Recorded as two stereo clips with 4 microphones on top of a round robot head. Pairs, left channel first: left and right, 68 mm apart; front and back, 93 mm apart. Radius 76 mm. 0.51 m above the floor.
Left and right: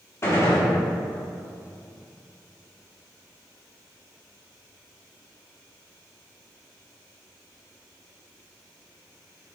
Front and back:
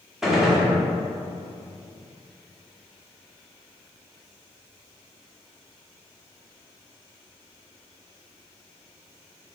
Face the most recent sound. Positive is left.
turn(degrees=95)